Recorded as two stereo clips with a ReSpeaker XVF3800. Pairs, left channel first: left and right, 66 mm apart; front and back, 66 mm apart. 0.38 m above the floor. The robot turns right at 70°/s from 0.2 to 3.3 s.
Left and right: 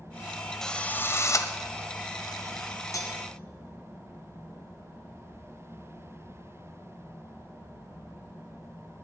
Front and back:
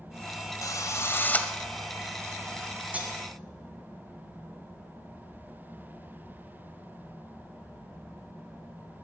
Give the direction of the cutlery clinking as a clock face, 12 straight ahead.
8 o'clock.